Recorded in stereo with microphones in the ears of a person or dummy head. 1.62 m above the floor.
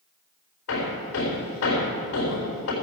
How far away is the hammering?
About 4 m.